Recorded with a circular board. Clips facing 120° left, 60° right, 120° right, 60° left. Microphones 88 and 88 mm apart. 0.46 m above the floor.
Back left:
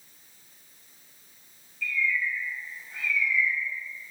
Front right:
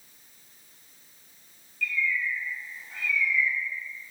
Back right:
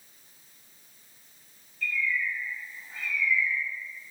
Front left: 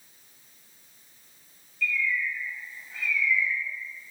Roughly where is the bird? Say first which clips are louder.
Even, front left 1 dB; right.